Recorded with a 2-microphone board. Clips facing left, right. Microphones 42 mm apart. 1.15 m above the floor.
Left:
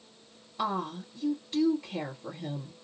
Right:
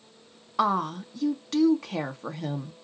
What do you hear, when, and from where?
0.6 s a woman speaking: 75° right (ahead or behind), 1.3 m